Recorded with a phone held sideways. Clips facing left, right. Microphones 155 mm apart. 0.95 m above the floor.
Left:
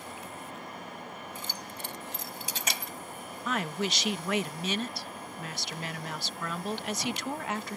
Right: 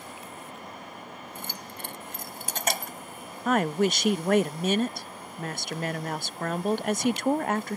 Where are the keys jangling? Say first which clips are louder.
Right 1 dB; 65° right (ahead or behind); by 2.9 s 50° right (ahead or behind).